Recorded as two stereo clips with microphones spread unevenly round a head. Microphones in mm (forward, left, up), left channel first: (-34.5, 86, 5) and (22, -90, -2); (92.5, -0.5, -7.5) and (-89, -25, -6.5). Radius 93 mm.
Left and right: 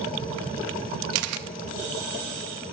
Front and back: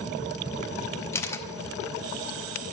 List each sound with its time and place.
1.1 s a camera shutter: 70° right, 0.5 m